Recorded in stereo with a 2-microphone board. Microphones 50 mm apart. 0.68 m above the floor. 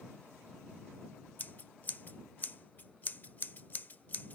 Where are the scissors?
35° left (ahead or behind).